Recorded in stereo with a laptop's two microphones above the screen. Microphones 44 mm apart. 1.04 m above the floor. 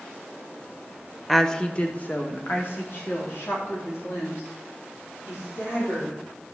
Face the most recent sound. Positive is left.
turn(degrees=65)  # may be behind; listen again after turning